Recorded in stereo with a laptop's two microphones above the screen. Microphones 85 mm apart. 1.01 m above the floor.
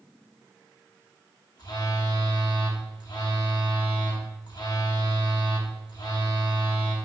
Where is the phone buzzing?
55° left (ahead or behind), 1.2 m.